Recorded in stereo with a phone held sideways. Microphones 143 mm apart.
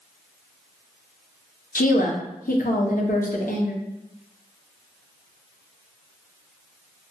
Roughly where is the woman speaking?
Left.